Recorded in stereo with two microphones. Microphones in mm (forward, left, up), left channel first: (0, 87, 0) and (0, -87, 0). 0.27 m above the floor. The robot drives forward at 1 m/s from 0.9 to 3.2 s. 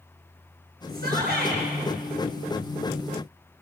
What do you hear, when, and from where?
0.9 s a shout: 65° right (ahead or behind), 4.5 m; by 1.6 s 70° right (ahead or behind), 4 m